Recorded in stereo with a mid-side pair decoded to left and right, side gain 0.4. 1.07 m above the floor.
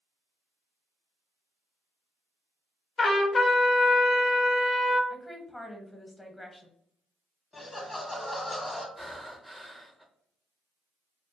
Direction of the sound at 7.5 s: 20° left.